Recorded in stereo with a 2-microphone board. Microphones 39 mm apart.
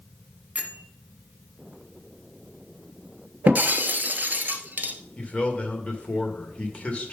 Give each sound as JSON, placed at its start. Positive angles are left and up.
{"t": 0.6, "sound": "a bell", "side_deg": -35, "distance_m": 1.1}
{"t": 3.5, "sound": "breaking glass", "side_deg": -50, "distance_m": 1.0}
{"t": 5.2, "sound": "a man speaking", "side_deg": 35, "distance_m": 1.9}